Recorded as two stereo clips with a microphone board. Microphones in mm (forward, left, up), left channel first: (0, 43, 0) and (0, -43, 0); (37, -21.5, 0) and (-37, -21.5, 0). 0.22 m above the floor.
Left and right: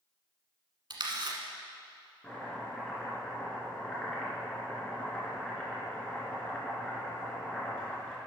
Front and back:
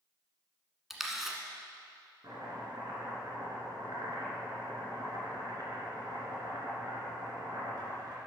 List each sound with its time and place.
0.9 s a camera shutter: 95° right, 1.2 m
2.2 s chopping: 165° left, 2.5 m